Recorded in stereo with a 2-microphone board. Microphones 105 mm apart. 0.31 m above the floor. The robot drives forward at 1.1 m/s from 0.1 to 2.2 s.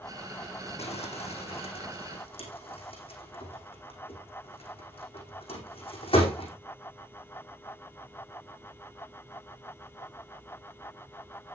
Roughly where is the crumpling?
Left.